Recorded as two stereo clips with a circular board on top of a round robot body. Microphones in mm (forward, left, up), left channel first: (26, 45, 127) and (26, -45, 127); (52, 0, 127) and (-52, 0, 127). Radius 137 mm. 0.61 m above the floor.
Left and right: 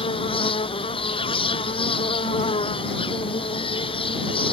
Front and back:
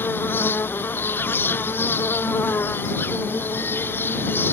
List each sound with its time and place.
0.0 s an insect: 70° left